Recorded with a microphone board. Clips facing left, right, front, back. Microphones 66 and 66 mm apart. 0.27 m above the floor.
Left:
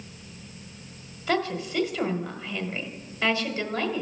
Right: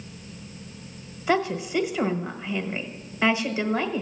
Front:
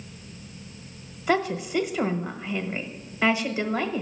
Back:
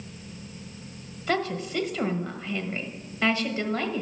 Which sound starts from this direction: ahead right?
A woman speaking, at 1.3 s.